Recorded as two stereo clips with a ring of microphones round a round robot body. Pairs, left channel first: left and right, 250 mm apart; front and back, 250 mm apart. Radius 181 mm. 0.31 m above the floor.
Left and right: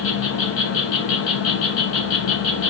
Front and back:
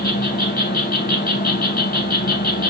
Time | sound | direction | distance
0.0 | an insect | 55° left | 0.8 m